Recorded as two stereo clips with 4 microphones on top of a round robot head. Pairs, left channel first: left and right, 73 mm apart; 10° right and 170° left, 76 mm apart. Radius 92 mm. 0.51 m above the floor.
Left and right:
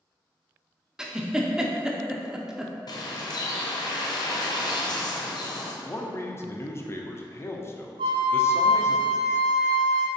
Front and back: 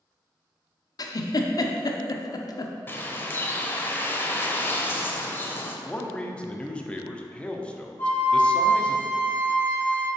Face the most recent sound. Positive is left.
turn(degrees=-80)